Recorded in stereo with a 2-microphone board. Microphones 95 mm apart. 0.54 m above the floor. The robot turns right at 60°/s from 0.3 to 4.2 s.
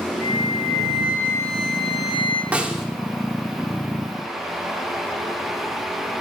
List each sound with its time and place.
0.2 s a flute: 145° left, 5.5 m; by 2.4 s 90° right, 5.5 m
2.5 s a snare drum: 15° right (ahead or behind), 1.7 m; by 2.9 s centre (ahead or behind), 1.7 m